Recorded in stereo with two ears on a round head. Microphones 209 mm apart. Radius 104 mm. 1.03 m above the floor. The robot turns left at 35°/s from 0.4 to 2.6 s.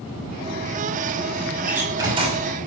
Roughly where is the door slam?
Ahead.